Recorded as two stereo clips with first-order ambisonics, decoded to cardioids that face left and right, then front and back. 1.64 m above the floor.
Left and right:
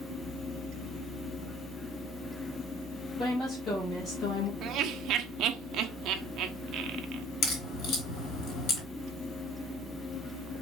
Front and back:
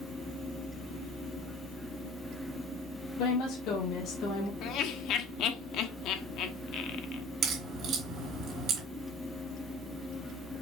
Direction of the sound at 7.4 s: 125° left.